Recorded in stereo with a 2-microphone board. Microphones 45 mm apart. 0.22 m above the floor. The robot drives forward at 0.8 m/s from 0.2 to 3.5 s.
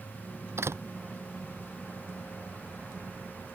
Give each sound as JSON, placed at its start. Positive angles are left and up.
{"t": 0.6, "sound": "a door slam", "side_deg": -85}